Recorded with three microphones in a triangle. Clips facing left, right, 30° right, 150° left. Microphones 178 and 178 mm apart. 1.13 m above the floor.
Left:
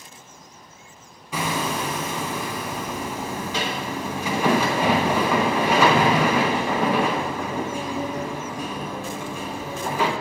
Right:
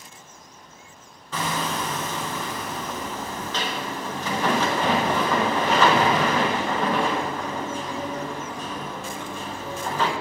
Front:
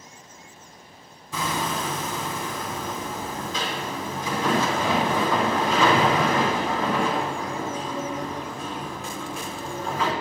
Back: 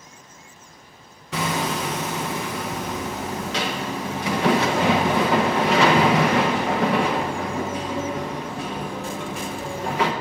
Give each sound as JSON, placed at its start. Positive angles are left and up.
{"t": 1.3, "sound": "hammering", "azimuth_deg": 170, "distance_m": 1.1}